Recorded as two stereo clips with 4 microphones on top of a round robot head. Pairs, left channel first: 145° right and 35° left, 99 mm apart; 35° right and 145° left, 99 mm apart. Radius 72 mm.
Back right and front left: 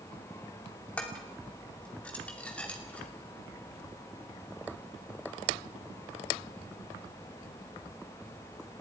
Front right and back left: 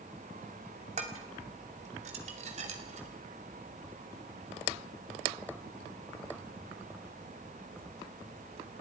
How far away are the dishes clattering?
About 2.5 m.